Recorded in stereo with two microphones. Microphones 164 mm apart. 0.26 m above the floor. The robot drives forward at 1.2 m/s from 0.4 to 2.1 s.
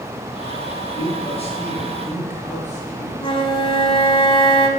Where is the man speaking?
35° left (ahead or behind), 4 m; by 3.3 s 45° left (ahead or behind), 3 m.